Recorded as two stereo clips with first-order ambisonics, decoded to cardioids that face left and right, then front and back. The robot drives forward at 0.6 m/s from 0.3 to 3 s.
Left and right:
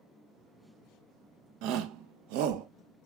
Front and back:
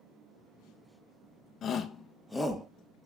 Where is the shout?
60° right, 1.0 m; by 2.7 s 100° right, 0.9 m.